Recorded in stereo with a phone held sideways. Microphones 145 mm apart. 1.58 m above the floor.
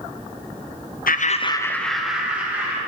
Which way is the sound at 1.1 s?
75° left (ahead or behind).